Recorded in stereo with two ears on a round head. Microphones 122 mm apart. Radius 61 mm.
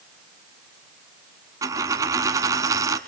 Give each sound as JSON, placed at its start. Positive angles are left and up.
{"t": 1.6, "sound": "a dropped coin", "side_deg": -25, "distance_m": 1.4}